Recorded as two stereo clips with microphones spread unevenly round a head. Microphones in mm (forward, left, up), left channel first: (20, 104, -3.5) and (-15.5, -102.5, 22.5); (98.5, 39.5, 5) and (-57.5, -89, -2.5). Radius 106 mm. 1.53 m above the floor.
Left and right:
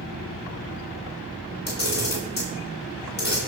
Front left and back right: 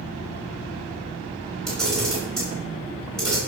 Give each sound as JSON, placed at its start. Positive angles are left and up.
{"t": 1.7, "sound": "a camera shutter", "azimuth_deg": 125, "distance_m": 5.5}